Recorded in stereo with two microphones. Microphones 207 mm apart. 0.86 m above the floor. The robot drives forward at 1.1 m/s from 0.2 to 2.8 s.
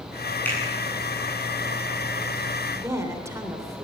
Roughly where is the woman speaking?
Centre.